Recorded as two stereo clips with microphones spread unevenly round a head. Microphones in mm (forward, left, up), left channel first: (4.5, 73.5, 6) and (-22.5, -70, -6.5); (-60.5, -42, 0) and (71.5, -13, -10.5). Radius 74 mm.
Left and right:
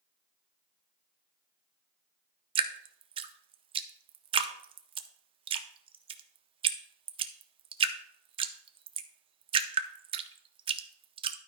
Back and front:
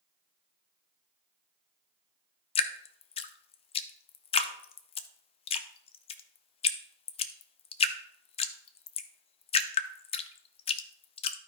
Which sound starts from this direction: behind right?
Dripping, at 2.5 s.